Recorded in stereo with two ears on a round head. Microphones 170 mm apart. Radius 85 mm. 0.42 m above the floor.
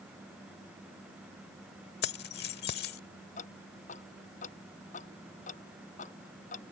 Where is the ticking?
45° left (ahead or behind).